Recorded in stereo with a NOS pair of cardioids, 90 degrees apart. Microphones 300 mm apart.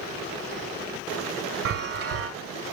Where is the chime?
50° right, 0.8 m.